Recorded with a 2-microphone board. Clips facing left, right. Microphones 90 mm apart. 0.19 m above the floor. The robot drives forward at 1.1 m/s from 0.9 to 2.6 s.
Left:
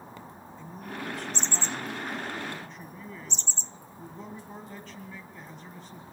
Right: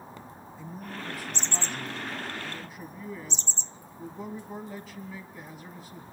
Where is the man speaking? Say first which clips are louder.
Left 1 dB; 5° right (ahead or behind), 1.7 m.